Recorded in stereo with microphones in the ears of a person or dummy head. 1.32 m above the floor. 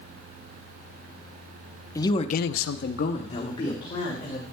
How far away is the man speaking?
About 0.9 m.